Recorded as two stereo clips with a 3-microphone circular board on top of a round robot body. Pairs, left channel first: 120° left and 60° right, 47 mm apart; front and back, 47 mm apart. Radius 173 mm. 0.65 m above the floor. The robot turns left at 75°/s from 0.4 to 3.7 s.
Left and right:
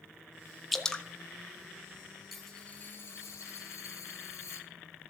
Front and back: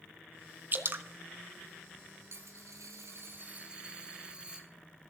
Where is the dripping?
150° right, 1.3 m; by 1.1 s straight behind, 1.3 m.